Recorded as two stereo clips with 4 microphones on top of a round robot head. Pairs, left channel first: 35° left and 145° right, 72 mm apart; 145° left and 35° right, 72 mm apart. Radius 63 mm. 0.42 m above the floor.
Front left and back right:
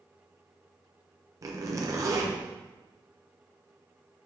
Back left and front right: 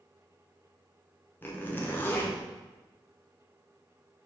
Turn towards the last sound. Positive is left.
turn(degrees=-165)